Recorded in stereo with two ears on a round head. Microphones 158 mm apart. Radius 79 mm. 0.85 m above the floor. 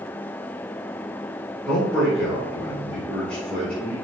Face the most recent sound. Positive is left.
turn(degrees=5)  # may be behind; listen again after turning